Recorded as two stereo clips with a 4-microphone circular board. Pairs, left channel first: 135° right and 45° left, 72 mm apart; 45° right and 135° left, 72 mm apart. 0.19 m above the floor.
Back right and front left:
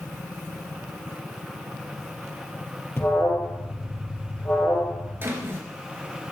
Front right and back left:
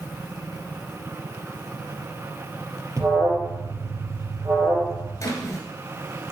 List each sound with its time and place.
3.0 s an alarm: 175° left, 3.5 m
5.2 s a drawer: 10° right, 2 m